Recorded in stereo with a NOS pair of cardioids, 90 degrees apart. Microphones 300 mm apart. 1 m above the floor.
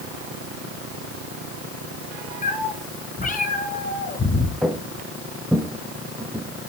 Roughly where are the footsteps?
Ahead.